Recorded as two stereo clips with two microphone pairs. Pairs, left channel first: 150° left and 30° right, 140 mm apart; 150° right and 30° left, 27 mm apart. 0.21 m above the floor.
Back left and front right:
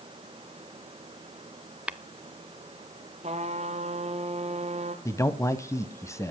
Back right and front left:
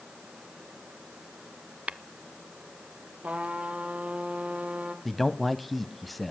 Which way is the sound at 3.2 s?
5° left.